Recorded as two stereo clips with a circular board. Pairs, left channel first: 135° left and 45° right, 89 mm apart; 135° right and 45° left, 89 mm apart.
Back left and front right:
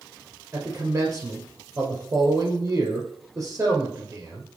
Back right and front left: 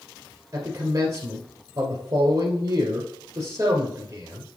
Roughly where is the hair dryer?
I don't hear a hair dryer.